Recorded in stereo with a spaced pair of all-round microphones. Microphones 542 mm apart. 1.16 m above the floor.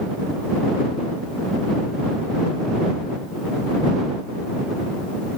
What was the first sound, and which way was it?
Only background noise.